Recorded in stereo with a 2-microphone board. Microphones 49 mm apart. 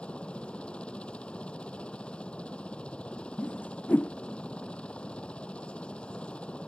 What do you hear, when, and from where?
0.0 s a helicopter: 20° left (ahead or behind)
3.4 s a whoosh: 35° left (ahead or behind)